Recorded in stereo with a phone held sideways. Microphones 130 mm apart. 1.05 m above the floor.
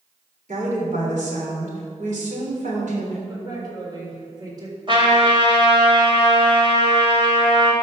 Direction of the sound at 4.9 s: 40° right (ahead or behind).